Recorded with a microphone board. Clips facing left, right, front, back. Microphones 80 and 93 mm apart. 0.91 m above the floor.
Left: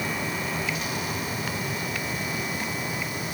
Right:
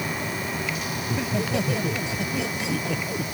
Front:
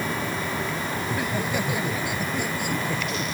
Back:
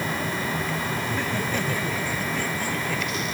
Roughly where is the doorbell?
No doorbell in this recording.